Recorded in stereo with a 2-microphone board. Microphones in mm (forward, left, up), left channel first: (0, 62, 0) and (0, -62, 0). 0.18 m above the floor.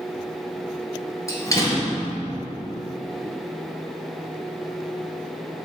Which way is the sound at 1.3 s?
25° left (ahead or behind).